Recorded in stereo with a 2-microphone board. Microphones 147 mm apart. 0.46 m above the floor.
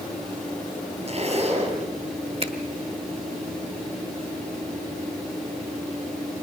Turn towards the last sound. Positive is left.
turn(degrees=-45)  # may be behind; listen again after turning